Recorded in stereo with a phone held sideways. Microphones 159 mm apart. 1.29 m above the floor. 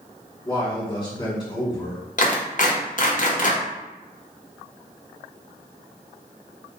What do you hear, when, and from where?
0.5 s a man speaking: 25° left (ahead or behind), 1.7 m
2.2 s a clap: 55° left (ahead or behind), 0.8 m